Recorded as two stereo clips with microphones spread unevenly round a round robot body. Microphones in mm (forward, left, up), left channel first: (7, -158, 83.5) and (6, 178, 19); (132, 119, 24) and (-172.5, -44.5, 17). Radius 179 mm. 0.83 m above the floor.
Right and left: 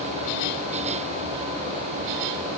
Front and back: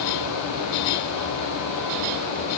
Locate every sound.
Only background noise.